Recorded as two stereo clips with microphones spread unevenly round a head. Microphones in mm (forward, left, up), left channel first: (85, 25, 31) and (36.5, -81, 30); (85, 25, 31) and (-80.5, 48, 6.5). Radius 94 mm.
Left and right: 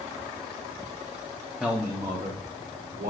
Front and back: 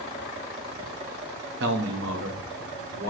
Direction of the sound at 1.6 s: 155° left.